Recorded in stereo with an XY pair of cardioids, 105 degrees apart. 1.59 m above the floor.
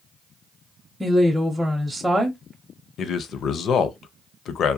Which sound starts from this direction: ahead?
A woman speaking, at 1.0 s.